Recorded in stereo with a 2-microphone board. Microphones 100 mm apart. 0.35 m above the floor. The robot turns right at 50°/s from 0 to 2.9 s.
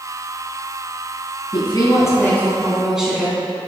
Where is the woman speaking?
120° left, 3 m; by 3.4 s 175° right, 3 m.